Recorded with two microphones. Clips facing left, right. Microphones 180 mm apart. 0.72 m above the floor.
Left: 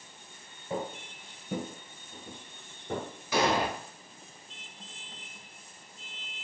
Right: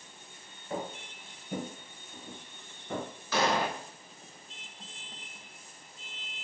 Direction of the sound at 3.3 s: 15° left (ahead or behind).